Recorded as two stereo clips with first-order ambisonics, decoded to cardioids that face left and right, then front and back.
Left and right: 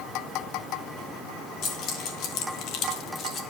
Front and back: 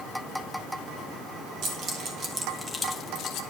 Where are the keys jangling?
135° left, 1.8 m; by 3.4 s 30° left, 1.2 m.